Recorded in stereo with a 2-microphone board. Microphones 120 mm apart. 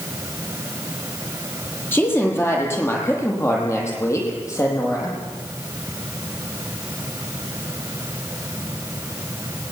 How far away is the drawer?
No drawer in this recording.